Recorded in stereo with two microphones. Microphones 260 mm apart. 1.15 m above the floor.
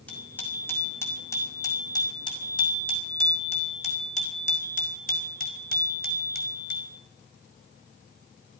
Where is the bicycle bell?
5° left (ahead or behind), 5.5 m; by 7.0 s 45° left (ahead or behind), 5 m.